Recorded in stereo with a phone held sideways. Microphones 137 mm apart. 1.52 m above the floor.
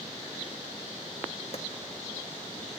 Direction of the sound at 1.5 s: 50° left (ahead or behind).